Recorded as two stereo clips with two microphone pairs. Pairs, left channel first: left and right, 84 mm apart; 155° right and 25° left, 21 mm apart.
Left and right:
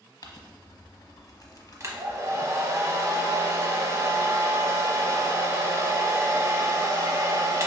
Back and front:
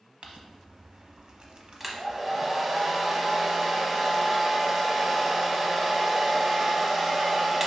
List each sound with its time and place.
0.2 s crumpling: 55° left, 0.8 m
1.8 s a hair dryer: 45° right, 0.7 m